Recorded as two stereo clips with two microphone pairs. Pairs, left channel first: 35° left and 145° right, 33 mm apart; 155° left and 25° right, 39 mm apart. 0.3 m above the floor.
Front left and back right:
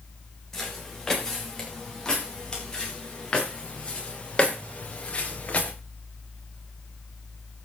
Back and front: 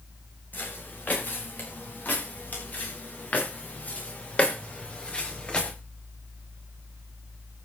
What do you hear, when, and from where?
0.5 s footsteps: 110° left, 10 m; by 5.7 s 85° left, 5 m